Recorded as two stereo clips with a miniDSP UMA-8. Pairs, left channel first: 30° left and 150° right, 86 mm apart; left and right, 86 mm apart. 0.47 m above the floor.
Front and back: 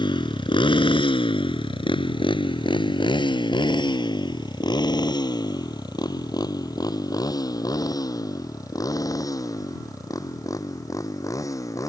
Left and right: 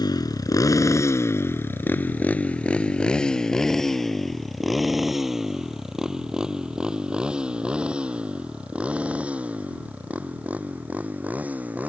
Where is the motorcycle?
55° left; by 11.9 s 20° right.